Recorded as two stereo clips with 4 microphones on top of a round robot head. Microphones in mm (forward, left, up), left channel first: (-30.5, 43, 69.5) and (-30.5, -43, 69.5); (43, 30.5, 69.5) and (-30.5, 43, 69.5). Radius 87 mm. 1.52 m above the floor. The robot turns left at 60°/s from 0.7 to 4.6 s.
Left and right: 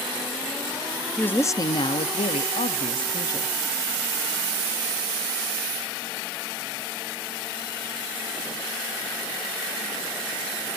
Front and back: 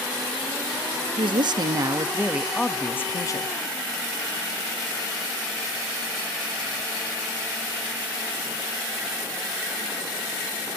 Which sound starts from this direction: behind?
A woman speaking, at 1.2 s.